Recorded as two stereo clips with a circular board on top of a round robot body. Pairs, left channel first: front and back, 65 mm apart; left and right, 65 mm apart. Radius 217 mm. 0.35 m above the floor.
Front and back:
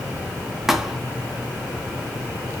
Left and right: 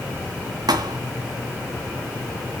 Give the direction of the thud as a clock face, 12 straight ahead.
3 o'clock.